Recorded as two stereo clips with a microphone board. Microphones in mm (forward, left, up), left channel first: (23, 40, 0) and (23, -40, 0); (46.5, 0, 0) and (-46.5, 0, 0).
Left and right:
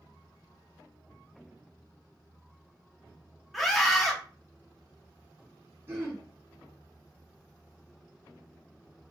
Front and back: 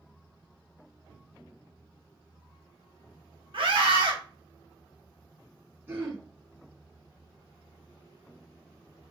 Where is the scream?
Straight behind, 0.9 m.